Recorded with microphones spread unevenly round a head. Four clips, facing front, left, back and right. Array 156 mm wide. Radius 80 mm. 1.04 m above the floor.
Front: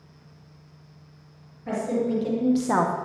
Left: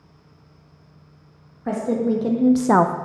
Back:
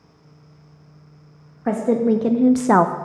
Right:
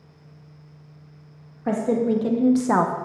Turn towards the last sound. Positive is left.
turn(degrees=150)